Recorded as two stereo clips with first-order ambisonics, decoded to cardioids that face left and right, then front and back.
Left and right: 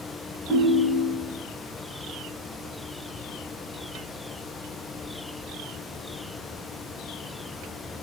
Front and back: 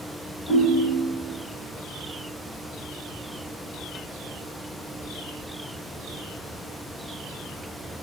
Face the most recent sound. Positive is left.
turn(degrees=25)